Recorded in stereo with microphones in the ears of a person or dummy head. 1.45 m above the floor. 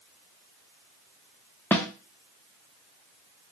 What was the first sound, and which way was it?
A snare drum, 10° left (ahead or behind).